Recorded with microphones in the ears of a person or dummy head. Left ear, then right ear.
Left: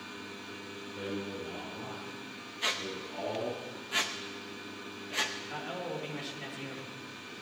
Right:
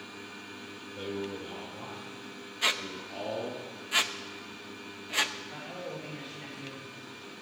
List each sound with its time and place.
0.9 s a man speaking: 30° right (ahead or behind), 4.5 m; by 3.6 s 45° right (ahead or behind), 2.5 m
2.6 s a squeak: 15° right (ahead or behind), 0.7 m
5.4 s a man speaking: 30° left (ahead or behind), 3.5 m